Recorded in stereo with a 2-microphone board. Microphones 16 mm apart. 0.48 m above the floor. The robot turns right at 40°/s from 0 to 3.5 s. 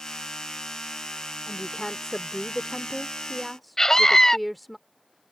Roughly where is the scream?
Left.